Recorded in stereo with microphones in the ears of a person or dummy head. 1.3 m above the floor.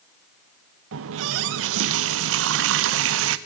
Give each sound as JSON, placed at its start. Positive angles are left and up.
{"t": 0.9, "sound": "a running tap", "side_deg": -70, "distance_m": 0.7}